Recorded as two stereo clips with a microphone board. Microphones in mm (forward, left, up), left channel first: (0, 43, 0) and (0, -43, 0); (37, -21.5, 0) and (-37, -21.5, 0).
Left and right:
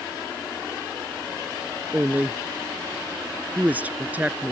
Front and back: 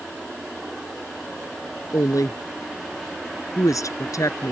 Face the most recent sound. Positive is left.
turn(degrees=-20)